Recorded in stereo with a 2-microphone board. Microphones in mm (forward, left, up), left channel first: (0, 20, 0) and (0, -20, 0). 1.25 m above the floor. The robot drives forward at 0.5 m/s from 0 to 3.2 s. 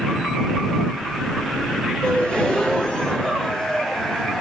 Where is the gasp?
30° left (ahead or behind), 2 m; by 4.4 s 20° left (ahead or behind), 2.5 m.